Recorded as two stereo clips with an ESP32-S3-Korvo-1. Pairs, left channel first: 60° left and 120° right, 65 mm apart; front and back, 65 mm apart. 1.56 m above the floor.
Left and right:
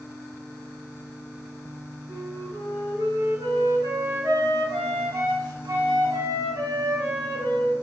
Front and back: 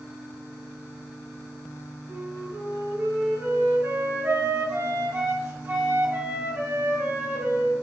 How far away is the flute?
About 0.8 m.